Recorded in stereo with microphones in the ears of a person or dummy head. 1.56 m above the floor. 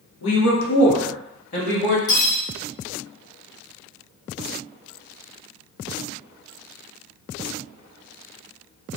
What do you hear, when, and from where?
0.2 s a woman speaking: 75° left (ahead or behind), 0.9 m; by 2.0 s 35° left (ahead or behind), 1.1 m
2.1 s cutlery clinking: 55° left (ahead or behind), 1.7 m